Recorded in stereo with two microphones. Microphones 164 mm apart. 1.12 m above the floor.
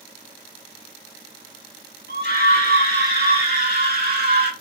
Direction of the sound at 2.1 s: 80° right.